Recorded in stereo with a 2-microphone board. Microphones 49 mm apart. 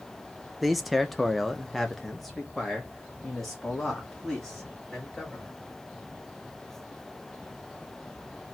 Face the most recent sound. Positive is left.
turn(degrees=0)  # may be behind; listen again after turning